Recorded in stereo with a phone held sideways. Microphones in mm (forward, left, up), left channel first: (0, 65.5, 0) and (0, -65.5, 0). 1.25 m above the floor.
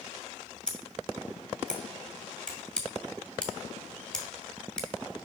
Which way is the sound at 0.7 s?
5° left (ahead or behind).